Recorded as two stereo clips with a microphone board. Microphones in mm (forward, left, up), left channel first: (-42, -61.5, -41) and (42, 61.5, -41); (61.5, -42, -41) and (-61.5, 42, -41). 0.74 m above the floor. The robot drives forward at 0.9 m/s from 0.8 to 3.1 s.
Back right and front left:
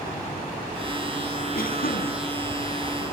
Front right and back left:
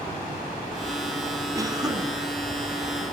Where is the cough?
145° right, 7.5 m; by 2.1 s 150° right, 8 m.